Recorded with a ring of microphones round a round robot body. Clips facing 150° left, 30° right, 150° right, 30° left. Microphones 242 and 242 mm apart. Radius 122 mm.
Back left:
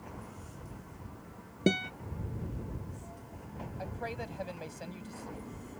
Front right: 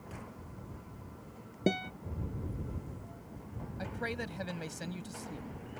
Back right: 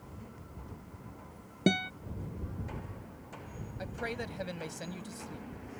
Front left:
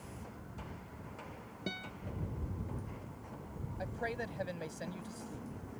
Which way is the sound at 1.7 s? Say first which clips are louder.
Back left 3 dB, back right 15 dB; 135° right.